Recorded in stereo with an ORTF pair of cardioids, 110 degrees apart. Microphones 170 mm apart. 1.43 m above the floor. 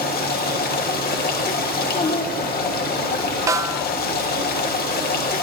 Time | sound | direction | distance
0.0 | running water | 70° left | 1.6 m
1.7 | a child speaking | 60° left | 1.9 m
3.5 | a snare drum | 20° right | 0.8 m